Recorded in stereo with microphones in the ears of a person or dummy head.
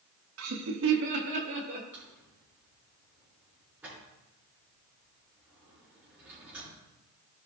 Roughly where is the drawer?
Centre.